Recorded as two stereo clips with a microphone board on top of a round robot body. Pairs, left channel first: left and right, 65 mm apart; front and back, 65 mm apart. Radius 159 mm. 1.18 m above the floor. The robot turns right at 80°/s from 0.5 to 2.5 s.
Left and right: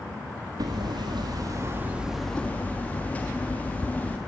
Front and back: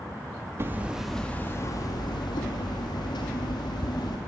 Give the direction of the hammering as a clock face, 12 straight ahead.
4 o'clock.